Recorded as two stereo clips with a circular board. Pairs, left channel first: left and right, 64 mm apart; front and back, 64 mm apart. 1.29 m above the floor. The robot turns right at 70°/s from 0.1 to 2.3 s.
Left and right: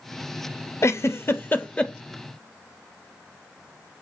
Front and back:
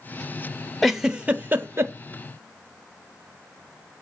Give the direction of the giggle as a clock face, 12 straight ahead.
9 o'clock.